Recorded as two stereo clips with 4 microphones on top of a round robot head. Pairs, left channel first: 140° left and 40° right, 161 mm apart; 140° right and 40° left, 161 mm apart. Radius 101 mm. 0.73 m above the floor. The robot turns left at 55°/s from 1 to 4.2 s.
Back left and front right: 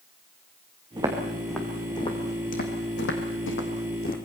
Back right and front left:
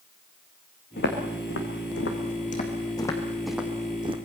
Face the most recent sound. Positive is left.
turn(degrees=95)